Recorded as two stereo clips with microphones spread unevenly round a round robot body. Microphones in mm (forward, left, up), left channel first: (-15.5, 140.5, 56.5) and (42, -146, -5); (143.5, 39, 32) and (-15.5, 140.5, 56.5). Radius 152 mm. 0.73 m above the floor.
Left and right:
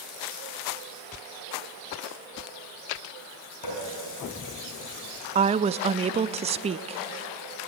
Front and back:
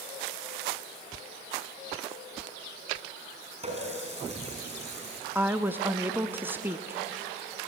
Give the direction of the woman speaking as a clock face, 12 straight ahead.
4 o'clock.